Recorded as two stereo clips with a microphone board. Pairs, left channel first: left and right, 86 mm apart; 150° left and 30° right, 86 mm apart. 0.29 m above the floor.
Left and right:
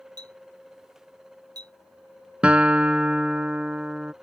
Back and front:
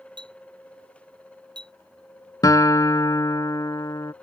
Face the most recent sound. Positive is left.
turn(degrees=-165)